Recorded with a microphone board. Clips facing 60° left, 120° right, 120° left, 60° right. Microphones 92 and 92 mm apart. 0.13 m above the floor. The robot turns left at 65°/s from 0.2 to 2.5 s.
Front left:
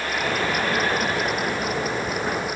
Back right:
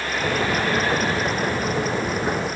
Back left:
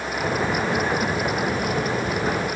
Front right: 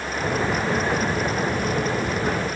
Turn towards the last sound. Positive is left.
No sound to turn to.